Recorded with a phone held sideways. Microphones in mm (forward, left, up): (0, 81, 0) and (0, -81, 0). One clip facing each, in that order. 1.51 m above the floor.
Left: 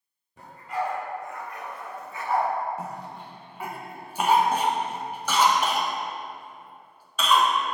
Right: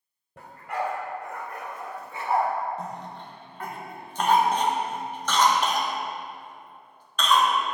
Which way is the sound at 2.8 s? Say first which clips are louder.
Even; 10° left (ahead or behind).